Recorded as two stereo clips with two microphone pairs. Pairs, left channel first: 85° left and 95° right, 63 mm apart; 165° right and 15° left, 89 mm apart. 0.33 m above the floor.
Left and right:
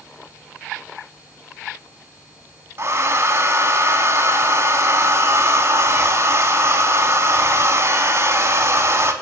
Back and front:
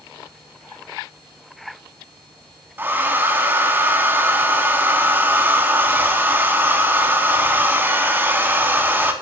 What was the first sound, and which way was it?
A hair dryer, 50° right.